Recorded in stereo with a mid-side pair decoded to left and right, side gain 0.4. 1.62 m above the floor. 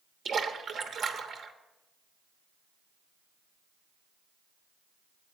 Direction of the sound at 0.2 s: 55° right.